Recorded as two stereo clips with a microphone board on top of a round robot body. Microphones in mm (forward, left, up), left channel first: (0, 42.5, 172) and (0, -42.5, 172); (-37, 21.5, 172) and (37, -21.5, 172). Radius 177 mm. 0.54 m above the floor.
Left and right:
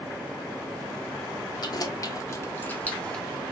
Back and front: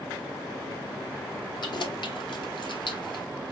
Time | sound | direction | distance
1.6 | keys jangling | 125° left | 1.4 m